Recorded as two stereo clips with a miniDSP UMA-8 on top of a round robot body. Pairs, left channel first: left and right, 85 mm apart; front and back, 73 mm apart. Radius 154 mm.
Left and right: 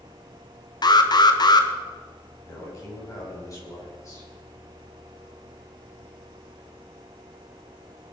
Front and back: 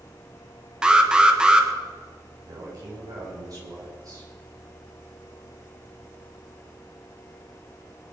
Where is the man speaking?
140° left, 8 m.